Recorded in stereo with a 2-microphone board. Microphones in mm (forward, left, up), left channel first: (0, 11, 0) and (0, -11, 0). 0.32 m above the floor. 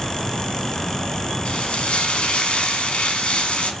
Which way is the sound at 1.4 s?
55° left (ahead or behind).